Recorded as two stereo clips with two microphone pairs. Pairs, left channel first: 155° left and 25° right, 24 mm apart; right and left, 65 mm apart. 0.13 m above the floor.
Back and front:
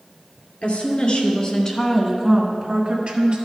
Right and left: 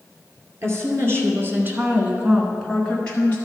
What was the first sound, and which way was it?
A woman speaking, 125° left.